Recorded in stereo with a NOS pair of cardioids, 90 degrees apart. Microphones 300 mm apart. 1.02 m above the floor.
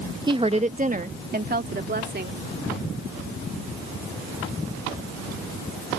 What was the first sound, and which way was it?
A woman speaking, 15° right.